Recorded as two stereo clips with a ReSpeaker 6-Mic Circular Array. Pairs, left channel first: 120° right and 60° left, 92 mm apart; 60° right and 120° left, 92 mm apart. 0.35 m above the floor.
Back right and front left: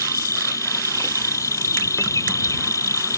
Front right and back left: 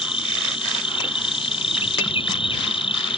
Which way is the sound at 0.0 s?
65° right.